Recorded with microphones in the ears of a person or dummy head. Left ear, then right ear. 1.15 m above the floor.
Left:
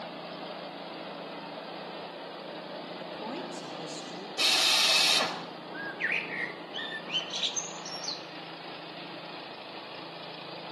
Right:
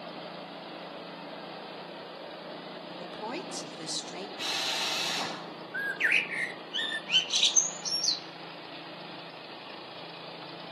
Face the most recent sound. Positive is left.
turn(degrees=-25)  # may be behind; listen again after turning